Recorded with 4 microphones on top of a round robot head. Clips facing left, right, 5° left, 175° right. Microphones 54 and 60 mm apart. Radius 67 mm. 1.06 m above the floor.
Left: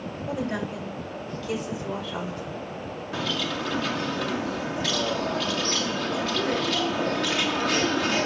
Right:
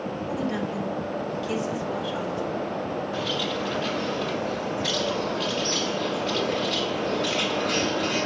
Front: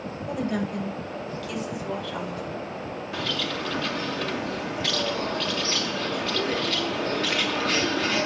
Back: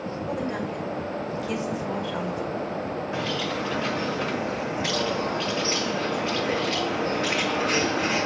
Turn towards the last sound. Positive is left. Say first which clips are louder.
# left 3 dB, even
turn(degrees=115)